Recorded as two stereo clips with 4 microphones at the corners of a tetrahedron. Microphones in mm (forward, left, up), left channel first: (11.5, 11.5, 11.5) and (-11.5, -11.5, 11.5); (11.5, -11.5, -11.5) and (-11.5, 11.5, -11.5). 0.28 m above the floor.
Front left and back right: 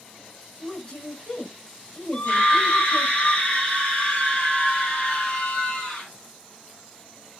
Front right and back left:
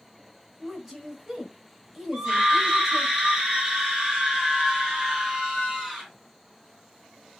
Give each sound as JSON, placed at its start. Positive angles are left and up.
{"t": 0.6, "sound": "a woman speaking", "azimuth_deg": 55, "distance_m": 1.1}
{"t": 2.1, "sound": "a scream", "azimuth_deg": 65, "distance_m": 1.9}